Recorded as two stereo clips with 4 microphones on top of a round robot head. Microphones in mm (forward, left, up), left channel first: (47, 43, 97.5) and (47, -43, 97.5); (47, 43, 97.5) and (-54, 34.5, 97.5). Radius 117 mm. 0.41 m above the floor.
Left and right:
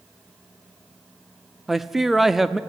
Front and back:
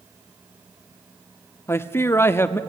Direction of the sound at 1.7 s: 10° right.